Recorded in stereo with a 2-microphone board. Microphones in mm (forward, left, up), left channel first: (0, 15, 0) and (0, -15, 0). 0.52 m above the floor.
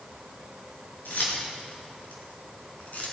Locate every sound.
1.1 s keys jangling: 80° left, 5.5 m; by 3.1 s 50° left (ahead or behind), 4 m